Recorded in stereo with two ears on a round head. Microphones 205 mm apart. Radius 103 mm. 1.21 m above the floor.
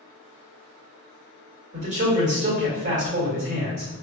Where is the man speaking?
30° right (ahead or behind), 1.6 m.